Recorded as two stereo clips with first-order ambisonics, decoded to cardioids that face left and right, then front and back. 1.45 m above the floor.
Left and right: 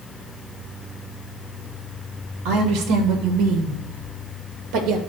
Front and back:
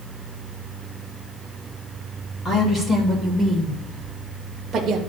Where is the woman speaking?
70° right, 2.0 m; by 5.0 s 120° right, 1.3 m.